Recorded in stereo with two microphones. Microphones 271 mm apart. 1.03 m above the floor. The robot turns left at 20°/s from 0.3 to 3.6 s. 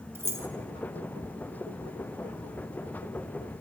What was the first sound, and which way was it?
Keys jangling, 10° right (ahead or behind).